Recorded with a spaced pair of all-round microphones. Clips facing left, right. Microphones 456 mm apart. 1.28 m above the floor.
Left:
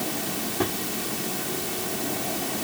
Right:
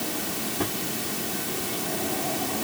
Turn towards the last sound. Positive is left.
No sound to turn to.